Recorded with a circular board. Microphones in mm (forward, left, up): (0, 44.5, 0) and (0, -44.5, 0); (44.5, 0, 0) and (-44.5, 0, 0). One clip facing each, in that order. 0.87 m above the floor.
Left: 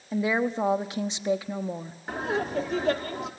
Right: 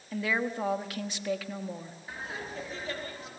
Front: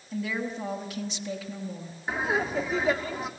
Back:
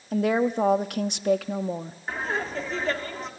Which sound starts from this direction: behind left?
A woman speaking, at 0.1 s.